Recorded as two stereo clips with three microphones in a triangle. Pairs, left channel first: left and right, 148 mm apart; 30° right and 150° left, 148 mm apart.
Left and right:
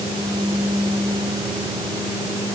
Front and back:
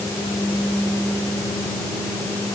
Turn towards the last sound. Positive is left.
No sound to turn to.